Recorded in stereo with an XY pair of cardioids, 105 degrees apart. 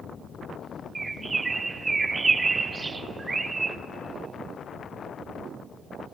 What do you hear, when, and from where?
0.9 s a bird: 25° right, 0.6 m